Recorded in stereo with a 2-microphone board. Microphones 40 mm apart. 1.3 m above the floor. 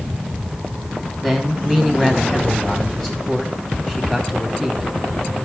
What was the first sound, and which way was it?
A man speaking, 15° left (ahead or behind).